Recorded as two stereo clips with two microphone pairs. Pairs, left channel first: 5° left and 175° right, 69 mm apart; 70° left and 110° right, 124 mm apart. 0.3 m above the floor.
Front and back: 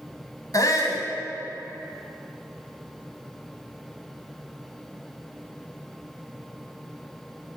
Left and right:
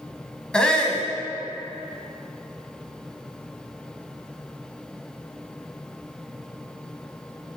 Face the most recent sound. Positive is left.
turn(degrees=-10)